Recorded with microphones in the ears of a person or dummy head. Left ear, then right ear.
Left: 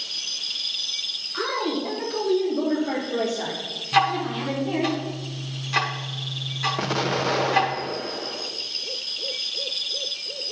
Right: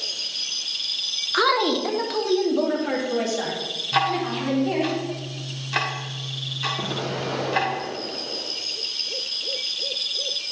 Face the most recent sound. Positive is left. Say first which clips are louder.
# left 3 dB
turn(degrees=50)  # may be behind; listen again after turning